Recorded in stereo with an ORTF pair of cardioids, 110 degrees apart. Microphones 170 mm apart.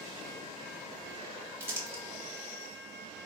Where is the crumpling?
15° right, 1.7 m.